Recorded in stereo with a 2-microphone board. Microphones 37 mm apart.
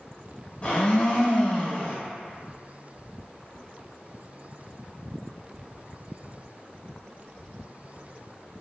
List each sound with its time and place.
0.6 s a blender: 40° left (ahead or behind), 0.7 m